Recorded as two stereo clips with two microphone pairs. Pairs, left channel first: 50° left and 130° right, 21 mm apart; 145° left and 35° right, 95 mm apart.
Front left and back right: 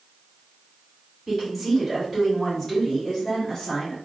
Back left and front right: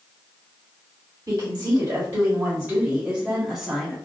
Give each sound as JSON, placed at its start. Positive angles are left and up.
{"t": 1.3, "sound": "a woman speaking", "azimuth_deg": -40, "distance_m": 1.7}